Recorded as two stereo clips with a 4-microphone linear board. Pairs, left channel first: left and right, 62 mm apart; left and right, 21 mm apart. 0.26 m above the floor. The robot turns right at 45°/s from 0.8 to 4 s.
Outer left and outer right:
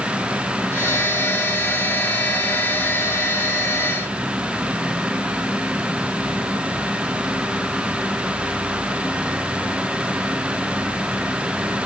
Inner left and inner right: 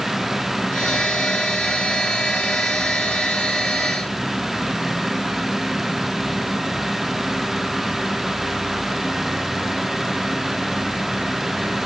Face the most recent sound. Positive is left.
No sound to turn to.